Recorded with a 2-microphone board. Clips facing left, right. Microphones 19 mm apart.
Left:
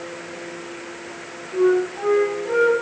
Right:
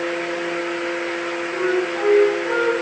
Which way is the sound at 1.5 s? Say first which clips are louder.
Left 4 dB; 25° right (ahead or behind).